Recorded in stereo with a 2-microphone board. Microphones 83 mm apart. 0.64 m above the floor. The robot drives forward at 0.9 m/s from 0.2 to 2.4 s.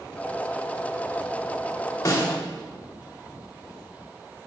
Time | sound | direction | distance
2.0 | a snare drum | 45° left (ahead or behind) | 3 m